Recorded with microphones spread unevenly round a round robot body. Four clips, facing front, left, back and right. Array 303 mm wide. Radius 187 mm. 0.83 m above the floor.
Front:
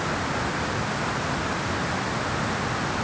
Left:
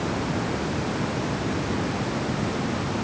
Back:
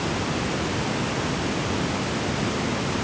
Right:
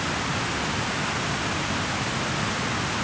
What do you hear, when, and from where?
Only background noise.